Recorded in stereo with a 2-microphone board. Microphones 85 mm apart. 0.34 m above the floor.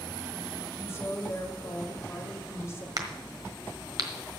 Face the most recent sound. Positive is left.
turn(degrees=-50)  # may be behind; listen again after turning